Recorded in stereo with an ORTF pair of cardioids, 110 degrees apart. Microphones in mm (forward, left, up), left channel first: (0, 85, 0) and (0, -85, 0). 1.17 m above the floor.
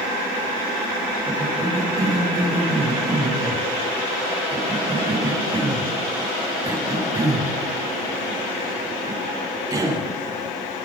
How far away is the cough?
About 9 m.